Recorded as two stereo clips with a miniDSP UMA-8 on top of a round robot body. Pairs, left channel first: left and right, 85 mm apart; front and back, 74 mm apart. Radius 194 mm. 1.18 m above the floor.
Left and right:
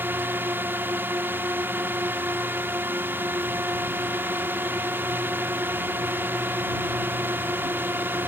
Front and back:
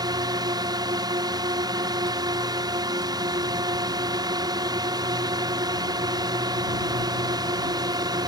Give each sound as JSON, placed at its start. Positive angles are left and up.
{"t": 0.0, "sound": "a drone", "azimuth_deg": -155}